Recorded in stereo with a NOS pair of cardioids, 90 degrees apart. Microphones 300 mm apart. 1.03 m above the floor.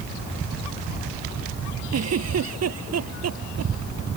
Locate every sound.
1.9 s a giggle: 55° right